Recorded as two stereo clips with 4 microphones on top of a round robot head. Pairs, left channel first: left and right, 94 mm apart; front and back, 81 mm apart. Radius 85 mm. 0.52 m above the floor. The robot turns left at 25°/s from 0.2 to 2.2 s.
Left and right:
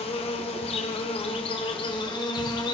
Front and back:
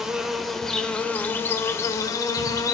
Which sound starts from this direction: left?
An insect, at 0.0 s.